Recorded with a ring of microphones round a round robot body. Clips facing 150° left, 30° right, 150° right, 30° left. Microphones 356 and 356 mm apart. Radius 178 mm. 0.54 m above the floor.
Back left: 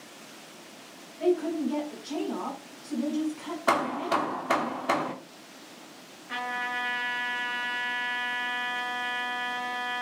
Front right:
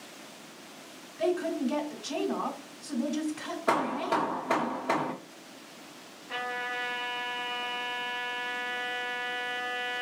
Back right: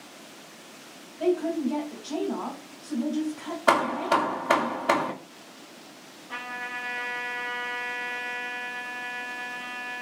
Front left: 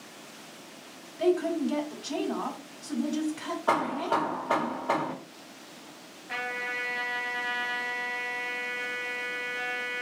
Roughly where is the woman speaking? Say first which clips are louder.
Back left 3 dB, even; ahead.